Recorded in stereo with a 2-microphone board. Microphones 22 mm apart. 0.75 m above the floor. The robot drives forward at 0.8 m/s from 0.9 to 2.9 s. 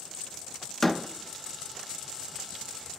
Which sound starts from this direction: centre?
A door slam, at 0.8 s.